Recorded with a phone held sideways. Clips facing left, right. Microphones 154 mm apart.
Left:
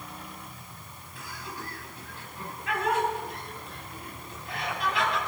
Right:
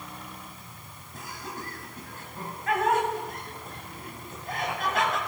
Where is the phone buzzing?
No phone buzzing in this recording.